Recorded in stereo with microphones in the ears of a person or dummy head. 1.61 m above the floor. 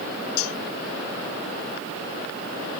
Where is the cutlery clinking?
80° left.